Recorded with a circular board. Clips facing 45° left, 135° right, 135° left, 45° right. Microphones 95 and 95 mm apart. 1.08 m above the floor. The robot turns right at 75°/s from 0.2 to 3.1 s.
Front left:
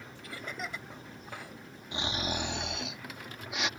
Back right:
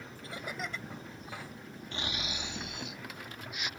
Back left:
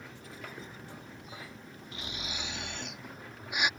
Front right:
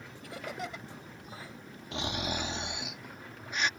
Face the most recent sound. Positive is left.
turn(degrees=55)